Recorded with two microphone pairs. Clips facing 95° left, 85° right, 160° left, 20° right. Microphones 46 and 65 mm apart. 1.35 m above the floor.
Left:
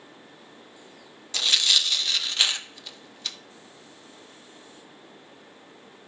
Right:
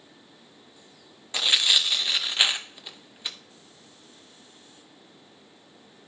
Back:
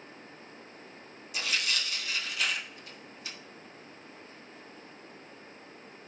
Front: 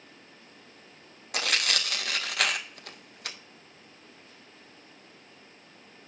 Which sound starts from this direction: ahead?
Tearing paper, at 1.3 s.